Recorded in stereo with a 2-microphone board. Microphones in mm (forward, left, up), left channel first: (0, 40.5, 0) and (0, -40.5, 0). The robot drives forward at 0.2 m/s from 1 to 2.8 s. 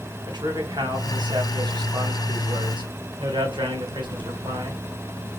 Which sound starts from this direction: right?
A man speaking, at 0.3 s.